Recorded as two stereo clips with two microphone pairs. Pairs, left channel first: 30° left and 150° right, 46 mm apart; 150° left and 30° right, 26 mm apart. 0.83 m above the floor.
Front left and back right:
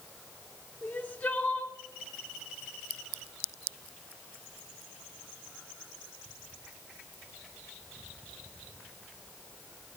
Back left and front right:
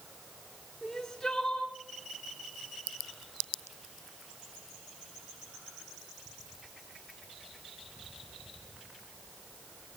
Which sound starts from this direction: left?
Crying, at 0.8 s.